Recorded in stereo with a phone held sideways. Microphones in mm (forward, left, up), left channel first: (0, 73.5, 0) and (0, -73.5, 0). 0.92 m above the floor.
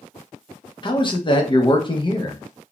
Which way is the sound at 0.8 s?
35° left (ahead or behind).